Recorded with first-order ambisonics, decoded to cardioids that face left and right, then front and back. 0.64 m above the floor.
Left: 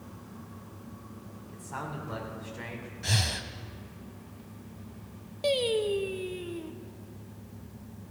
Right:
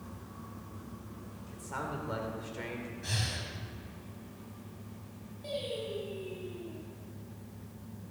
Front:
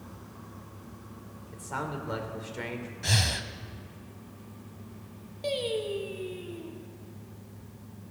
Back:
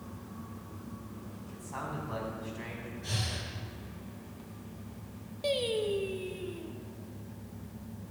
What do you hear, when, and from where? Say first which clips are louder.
1.5 s a man speaking: even, front 5 dB; 15° right, 2.5 m
3.0 s breathing: left 7 dB, front 9 dB; 30° left, 0.8 m
5.4 s singing: left 10 dB, even; 95° left, 0.9 m